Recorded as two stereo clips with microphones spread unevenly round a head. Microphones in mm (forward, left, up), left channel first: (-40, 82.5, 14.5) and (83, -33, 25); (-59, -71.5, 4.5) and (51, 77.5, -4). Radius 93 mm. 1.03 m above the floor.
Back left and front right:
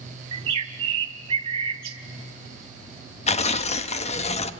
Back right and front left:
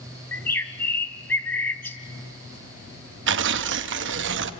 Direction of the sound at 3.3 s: 85° left.